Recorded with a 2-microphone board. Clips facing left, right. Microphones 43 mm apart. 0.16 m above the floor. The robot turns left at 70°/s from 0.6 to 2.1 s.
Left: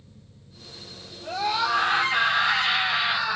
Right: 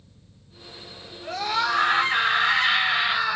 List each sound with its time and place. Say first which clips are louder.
1.2 s a scream: even; 60° right, 2 m; by 3.4 s 120° right, 2 m